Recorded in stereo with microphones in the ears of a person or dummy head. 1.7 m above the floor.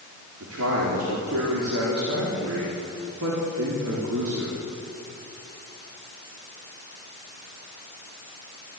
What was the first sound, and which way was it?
A man speaking, 80° right.